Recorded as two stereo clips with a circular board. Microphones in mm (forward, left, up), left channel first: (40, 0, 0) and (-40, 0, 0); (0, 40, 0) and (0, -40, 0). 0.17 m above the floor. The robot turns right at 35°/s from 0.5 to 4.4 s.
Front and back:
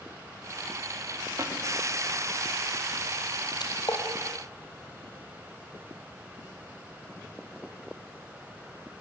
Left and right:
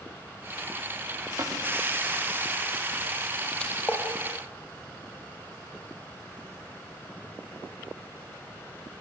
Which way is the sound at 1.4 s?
130° right.